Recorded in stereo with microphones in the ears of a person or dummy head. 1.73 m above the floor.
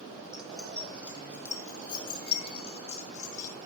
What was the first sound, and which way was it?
Keys jangling, 10° right (ahead or behind).